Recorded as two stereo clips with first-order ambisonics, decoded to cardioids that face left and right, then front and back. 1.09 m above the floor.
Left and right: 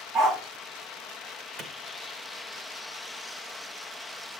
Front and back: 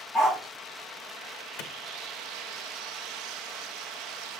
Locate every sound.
0.1 s a dog barking: 80° right, 6 m
1.6 s a clap: 30° right, 0.9 m